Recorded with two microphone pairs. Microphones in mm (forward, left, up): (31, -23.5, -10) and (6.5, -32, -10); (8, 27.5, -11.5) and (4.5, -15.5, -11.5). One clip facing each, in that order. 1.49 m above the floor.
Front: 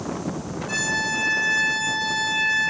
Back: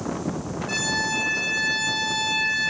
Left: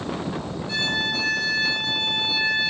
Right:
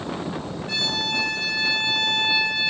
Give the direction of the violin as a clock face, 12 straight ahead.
3 o'clock.